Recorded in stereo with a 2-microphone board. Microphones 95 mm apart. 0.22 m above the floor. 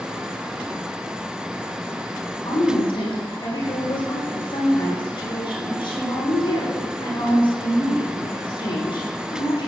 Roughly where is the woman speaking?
Left.